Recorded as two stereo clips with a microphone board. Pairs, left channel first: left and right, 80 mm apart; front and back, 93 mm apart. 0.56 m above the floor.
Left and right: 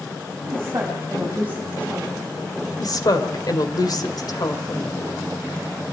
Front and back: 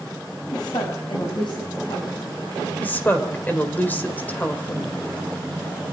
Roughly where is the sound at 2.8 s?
Ahead left.